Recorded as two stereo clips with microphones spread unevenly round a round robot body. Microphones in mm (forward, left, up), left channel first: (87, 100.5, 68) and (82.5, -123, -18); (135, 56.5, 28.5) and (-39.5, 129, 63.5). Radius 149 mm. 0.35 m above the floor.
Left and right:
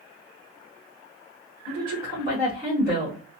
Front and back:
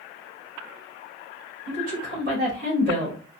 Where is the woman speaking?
155° right, 2.5 m.